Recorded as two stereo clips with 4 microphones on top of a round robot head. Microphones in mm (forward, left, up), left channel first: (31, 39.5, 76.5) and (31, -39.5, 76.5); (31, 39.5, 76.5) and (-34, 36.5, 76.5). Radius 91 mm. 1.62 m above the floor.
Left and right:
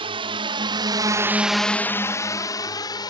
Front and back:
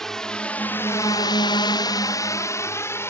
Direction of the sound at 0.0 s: 85° right.